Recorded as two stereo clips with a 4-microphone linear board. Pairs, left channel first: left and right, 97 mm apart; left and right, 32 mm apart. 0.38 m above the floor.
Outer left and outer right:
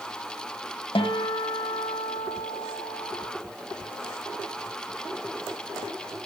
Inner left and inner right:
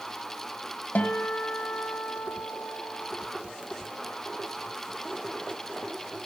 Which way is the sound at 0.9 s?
70° left (ahead or behind).